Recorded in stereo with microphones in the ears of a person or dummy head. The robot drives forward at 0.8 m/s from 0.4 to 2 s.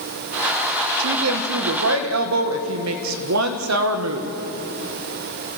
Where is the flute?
I don't hear a flute.